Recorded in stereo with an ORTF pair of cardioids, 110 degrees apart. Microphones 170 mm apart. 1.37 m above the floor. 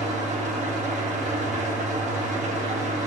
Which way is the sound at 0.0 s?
45° right.